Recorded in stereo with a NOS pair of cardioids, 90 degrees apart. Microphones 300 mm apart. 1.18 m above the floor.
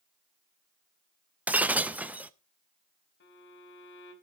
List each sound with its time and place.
1.5 s breaking glass: 5° right, 0.7 m
3.2 s a violin: 40° left, 3.5 m